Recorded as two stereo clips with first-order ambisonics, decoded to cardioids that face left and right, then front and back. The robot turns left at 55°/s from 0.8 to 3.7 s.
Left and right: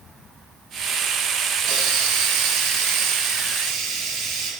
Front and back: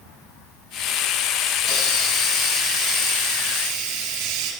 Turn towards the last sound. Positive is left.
turn(degrees=-160)